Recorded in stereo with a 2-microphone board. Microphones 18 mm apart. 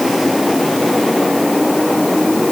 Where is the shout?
I don't hear a shout.